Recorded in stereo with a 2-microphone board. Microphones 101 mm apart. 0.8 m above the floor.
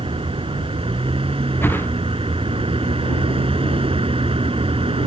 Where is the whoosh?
20° left (ahead or behind).